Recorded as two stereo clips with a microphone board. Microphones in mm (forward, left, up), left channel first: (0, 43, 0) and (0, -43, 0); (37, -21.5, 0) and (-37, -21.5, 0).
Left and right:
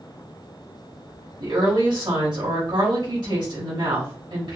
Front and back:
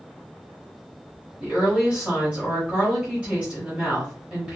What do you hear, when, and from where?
1.4 s a woman speaking: 100° right, 3 m